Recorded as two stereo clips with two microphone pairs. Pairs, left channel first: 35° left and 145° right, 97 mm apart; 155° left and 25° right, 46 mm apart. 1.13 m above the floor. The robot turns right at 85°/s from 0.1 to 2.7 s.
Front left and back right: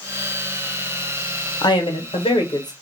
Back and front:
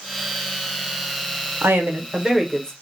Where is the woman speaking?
10° right, 0.7 m; by 2.7 s 85° left, 0.7 m.